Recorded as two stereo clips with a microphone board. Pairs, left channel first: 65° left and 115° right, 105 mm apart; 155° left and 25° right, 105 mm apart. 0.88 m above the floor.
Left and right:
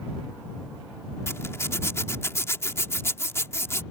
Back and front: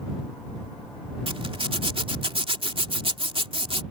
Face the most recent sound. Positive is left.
turn(degrees=5)